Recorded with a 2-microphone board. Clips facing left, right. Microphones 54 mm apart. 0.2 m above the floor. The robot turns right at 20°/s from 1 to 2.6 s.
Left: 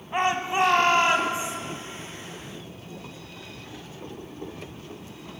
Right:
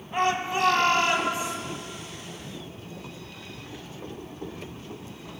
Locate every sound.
0.1 s a shout: 20° left (ahead or behind), 1.0 m